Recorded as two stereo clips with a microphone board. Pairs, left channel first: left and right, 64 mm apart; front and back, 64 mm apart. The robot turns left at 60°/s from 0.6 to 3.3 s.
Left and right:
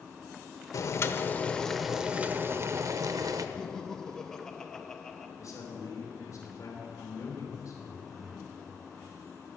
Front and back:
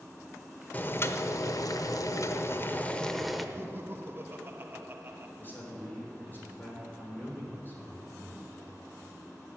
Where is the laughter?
165° left, 0.7 m.